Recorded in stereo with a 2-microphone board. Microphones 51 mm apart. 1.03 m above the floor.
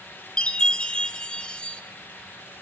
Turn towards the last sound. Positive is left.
turn(degrees=20)  # may be behind; listen again after turning